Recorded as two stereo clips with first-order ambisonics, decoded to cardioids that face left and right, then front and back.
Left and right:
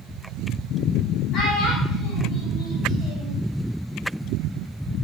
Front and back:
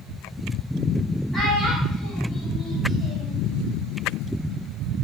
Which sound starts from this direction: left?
A child speaking, at 1.3 s.